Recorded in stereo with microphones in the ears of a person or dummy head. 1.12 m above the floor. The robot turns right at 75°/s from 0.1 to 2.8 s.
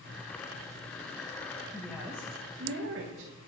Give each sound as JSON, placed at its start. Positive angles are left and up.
{"t": 1.7, "sound": "a woman speaking", "azimuth_deg": 165, "distance_m": 1.1}